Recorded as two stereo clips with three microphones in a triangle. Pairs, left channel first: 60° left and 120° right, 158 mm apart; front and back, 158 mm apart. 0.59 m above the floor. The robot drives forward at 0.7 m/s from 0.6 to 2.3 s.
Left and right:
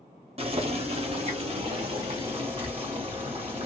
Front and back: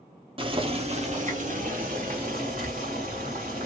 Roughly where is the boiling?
Behind right.